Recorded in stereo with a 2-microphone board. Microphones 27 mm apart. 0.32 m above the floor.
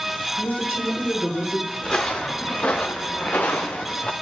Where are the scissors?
I don't hear scissors.